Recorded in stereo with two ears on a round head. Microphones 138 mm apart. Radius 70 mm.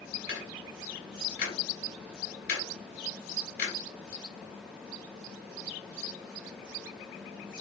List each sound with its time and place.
0.3 s ticking: 65° left (ahead or behind), 2 m